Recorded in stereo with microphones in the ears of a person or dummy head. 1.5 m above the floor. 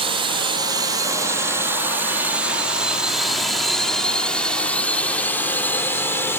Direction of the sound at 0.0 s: 25° right (ahead or behind).